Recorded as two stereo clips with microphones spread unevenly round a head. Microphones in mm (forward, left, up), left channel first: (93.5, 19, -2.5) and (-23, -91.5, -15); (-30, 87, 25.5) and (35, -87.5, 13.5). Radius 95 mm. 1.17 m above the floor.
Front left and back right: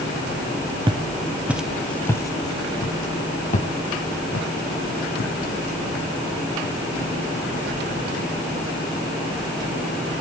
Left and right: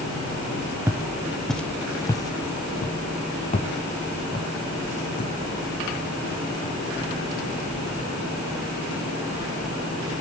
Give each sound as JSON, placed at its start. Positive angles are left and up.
{"t": 0.9, "sound": "footsteps", "azimuth_deg": -135, "distance_m": 1.2}